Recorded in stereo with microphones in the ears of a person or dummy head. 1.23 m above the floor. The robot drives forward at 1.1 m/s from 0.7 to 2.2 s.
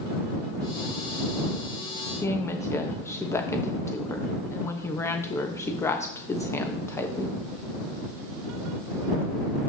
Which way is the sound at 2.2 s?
15° left (ahead or behind).